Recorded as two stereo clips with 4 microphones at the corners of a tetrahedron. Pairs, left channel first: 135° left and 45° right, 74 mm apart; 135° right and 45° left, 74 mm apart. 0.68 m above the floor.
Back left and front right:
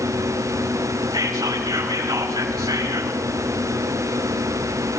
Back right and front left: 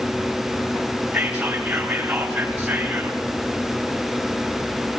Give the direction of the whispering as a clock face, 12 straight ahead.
1 o'clock.